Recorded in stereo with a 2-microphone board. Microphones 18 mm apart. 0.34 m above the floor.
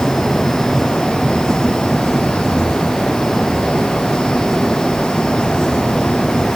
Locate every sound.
Only background noise.